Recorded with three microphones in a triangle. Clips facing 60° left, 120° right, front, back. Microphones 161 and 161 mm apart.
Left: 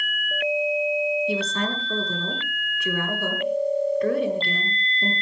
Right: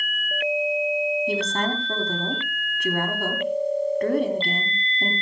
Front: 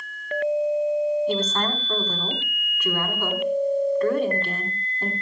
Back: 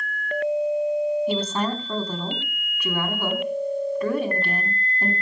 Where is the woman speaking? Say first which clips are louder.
Right 1 dB, back 1 dB; 100° right, 3.5 m.